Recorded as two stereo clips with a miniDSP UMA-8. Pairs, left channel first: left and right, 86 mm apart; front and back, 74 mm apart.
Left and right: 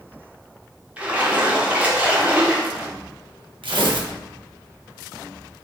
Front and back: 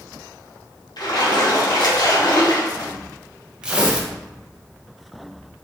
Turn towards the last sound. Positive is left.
turn(degrees=-105)